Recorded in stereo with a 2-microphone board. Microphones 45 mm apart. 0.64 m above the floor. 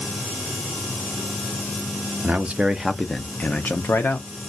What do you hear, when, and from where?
2.2 s a man speaking: 35° right (ahead or behind), 0.6 m; by 4.5 s 60° left (ahead or behind), 1.0 m